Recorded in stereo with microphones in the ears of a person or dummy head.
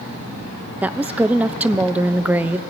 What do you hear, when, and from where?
0.8 s a woman speaking: 10° right (ahead or behind), 0.7 m